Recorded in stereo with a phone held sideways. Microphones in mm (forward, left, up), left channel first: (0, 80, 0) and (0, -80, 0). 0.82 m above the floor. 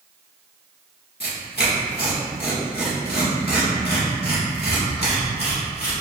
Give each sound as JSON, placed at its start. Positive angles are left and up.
{"t": 1.2, "sound": "tearing paper", "side_deg": 85, "distance_m": 1.2}